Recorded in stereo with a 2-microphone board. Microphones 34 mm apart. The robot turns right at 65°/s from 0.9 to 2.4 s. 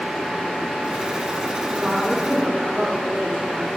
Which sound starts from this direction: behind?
A woman speaking, at 1.7 s.